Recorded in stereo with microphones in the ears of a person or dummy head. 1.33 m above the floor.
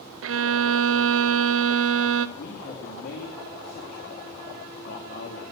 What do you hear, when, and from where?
0.2 s a violin: 75° right (ahead or behind), 0.7 m
2.4 s a man speaking: 45° left (ahead or behind), 2 m